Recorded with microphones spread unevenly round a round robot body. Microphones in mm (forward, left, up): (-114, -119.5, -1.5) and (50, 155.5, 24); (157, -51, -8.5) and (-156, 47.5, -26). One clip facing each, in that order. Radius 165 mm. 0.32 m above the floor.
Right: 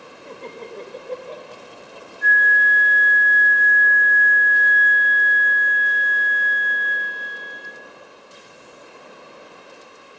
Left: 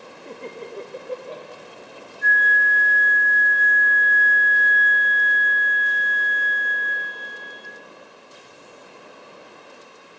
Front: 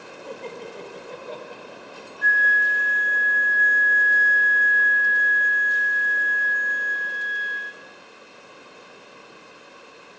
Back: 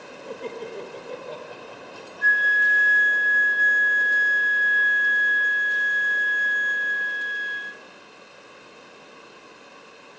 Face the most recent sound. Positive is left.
turn(degrees=170)